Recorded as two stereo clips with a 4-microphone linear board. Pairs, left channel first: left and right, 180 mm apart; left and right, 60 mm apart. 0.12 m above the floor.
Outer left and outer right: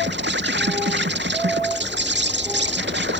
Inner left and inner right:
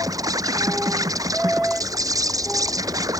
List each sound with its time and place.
0.0 s an insect: 80° right